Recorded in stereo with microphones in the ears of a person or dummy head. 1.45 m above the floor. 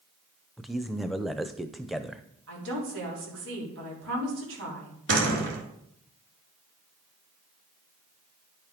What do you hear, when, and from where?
0.6 s a man speaking: centre (ahead or behind), 0.7 m
2.5 s a woman speaking: 70° right (ahead or behind), 3.5 m
5.1 s a door slam: 70° right (ahead or behind), 2.5 m